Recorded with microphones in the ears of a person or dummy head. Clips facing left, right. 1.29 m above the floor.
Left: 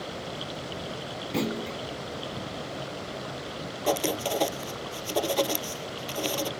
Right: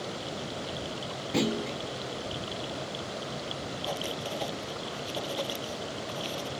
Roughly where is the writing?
Left.